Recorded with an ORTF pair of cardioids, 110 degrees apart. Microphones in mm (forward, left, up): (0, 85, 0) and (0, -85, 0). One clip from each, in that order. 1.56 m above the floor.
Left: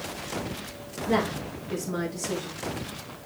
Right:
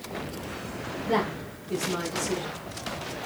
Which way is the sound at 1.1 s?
15° right.